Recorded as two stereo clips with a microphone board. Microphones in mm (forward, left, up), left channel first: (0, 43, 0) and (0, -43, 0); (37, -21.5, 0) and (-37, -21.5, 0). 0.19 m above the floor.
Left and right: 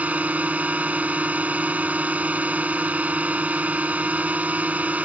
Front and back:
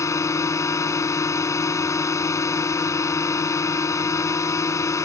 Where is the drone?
25° right.